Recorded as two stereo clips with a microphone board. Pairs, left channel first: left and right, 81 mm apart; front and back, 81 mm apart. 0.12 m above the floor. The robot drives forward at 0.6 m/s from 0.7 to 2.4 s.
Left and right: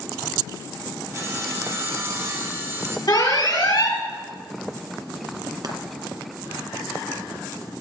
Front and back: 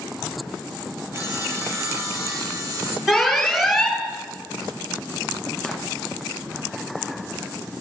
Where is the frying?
90° right, 1.7 m.